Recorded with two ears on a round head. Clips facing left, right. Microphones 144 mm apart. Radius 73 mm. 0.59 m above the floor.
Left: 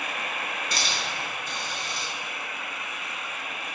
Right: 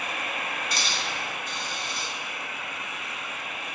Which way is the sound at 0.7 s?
80° left.